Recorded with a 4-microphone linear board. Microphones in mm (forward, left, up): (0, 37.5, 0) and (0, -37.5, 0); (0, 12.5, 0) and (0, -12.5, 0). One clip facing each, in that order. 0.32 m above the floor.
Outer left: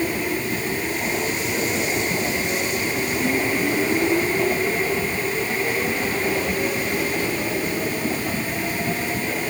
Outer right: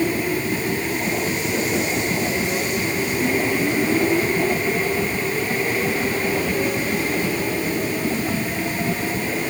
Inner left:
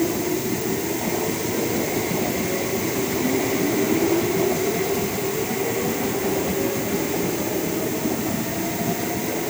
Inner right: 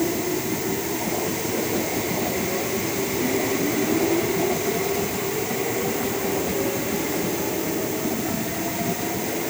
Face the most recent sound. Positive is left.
No sound to turn to.